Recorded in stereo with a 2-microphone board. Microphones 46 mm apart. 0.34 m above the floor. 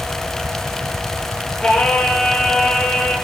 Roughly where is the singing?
Centre.